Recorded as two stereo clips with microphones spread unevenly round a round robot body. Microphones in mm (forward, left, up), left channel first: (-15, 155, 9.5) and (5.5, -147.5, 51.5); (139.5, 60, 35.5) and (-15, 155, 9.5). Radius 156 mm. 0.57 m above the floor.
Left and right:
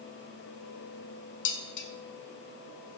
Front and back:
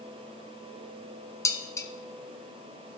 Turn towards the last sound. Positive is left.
turn(degrees=45)